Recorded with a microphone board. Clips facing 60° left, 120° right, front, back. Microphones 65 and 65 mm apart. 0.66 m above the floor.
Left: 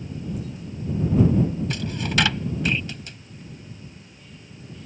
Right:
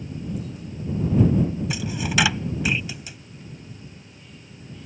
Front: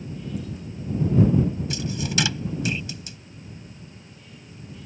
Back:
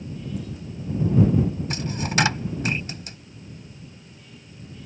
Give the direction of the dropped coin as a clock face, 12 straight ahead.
7 o'clock.